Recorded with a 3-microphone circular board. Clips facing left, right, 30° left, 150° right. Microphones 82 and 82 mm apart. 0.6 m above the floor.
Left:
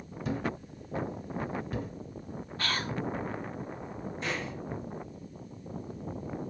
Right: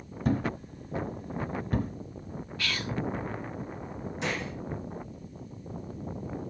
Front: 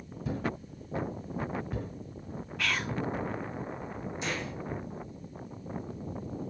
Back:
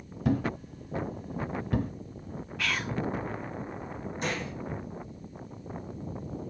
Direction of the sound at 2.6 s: 120° left.